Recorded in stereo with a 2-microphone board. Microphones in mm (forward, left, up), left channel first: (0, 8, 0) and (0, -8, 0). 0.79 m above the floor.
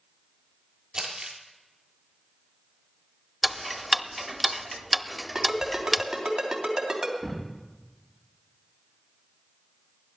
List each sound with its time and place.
0.9 s crumpling: 40° right (ahead or behind), 3 m
3.4 s ticking: 5° right (ahead or behind), 0.5 m
5.3 s a ringtone: 30° right (ahead or behind), 3.5 m
7.2 s a thud: 10° right (ahead or behind), 7.5 m